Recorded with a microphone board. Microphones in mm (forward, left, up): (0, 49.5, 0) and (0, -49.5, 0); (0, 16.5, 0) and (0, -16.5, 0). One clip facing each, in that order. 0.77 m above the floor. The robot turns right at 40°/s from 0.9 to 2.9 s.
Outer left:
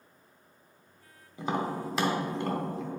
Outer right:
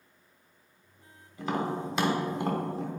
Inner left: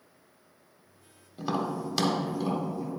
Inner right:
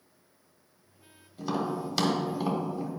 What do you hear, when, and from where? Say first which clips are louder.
1.4 s tapping: even, even; 25° left (ahead or behind), 1.2 m; by 2.9 s 35° right (ahead or behind), 1.2 m